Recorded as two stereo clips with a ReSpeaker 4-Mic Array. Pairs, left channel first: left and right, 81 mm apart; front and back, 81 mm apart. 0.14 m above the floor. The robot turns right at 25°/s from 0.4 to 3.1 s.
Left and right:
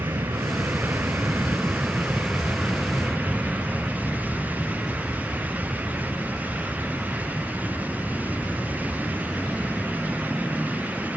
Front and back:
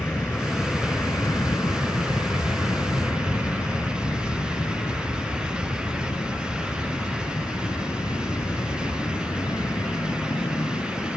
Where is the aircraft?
55° right; by 11.2 s 15° left.